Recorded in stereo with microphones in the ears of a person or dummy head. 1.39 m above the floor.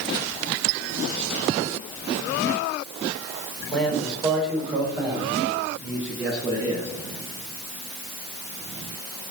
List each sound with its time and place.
3.7 s a man speaking: centre (ahead or behind), 5 m; by 6.9 s 20° right (ahead or behind), 7 m